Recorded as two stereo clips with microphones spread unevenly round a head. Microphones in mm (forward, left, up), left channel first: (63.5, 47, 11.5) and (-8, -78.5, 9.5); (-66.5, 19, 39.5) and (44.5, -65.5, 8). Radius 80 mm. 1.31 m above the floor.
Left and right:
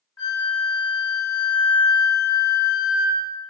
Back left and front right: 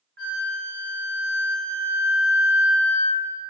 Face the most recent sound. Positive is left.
turn(degrees=0)